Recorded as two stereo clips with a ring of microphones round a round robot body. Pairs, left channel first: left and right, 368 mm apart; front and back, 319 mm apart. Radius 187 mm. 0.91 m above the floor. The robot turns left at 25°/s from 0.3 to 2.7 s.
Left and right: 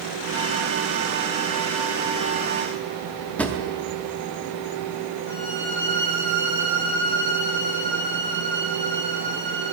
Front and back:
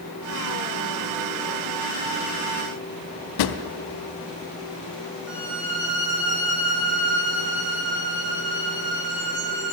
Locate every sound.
3.4 s a drawer: 5° left, 0.6 m
5.3 s a violin: 135° left, 2.5 m